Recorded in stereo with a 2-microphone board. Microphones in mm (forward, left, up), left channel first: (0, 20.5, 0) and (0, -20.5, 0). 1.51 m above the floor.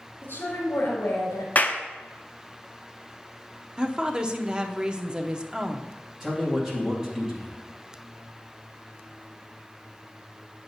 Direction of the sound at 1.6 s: 40° left (ahead or behind).